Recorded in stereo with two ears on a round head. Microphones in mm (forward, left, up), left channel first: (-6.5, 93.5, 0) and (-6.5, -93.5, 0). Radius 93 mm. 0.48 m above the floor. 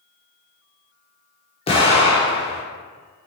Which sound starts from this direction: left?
An explosion, at 1.7 s.